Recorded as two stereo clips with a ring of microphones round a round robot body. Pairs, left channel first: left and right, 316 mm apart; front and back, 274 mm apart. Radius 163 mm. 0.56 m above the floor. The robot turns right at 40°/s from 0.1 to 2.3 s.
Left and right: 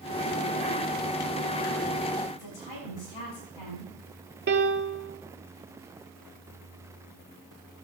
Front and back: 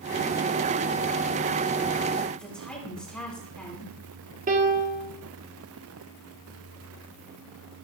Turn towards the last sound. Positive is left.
turn(degrees=-130)